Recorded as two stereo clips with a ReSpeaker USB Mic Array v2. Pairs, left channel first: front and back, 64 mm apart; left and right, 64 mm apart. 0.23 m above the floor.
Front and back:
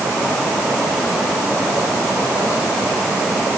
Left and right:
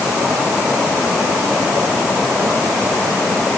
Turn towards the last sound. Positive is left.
No sound to turn to.